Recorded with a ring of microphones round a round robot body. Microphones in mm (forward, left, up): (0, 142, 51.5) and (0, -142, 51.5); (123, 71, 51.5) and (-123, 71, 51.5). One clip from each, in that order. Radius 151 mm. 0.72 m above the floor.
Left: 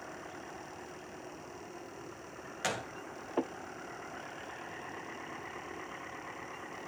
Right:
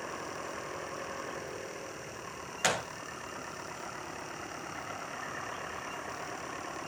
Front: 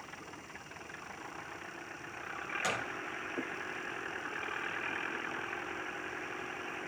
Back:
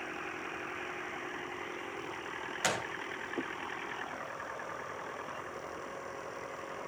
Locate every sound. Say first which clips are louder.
2.6 s a gunshot: right 5 dB, back 3 dB; 135° right, 0.6 m